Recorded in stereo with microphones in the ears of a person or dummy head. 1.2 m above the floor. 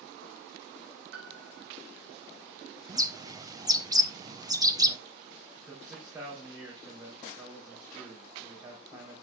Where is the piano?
65° right (ahead or behind), 3 m.